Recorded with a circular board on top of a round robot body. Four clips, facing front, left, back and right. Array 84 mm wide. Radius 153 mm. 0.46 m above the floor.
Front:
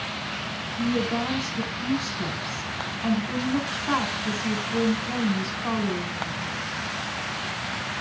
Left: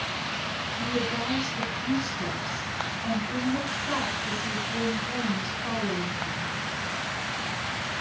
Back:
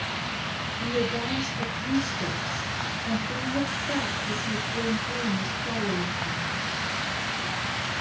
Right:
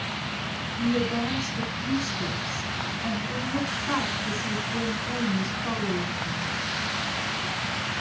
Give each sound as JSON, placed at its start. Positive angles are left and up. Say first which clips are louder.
{"t": 0.8, "sound": "a woman speaking", "louder": "right 5 dB, front 3 dB", "azimuth_deg": -10, "distance_m": 5.0}